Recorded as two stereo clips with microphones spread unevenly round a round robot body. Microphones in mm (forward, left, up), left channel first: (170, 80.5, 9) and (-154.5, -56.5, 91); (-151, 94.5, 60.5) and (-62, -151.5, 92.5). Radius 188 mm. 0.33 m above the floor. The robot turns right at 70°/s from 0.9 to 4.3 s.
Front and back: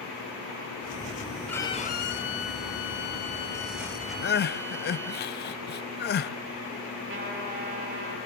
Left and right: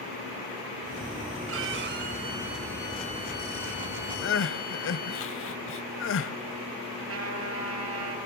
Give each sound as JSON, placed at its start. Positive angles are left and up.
{"t": 1.5, "sound": "a violin", "azimuth_deg": -55, "distance_m": 2.0}
{"t": 4.2, "sound": "crying", "azimuth_deg": 70, "distance_m": 0.8}
{"t": 7.1, "sound": "a trumpet", "azimuth_deg": -95, "distance_m": 7.5}